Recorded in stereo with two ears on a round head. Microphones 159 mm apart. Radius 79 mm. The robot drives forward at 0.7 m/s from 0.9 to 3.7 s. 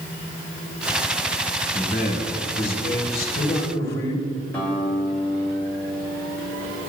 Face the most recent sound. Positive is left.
turn(degrees=10)  # may be behind; listen again after turning